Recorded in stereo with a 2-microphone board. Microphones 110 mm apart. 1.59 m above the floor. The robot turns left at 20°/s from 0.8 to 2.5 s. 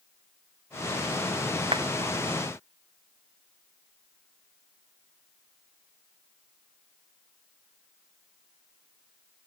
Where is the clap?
50° right (ahead or behind), 0.7 m.